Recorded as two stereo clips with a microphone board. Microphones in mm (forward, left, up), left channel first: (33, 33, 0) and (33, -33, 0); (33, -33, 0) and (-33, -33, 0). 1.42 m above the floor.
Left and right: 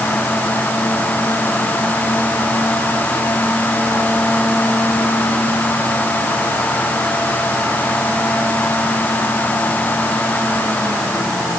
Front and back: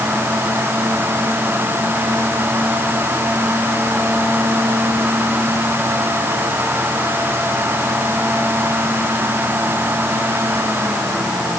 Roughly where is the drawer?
I don't hear a drawer.